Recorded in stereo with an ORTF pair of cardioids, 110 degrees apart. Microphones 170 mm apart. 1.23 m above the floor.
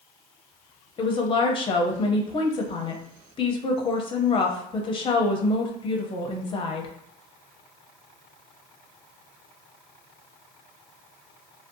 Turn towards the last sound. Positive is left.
turn(degrees=30)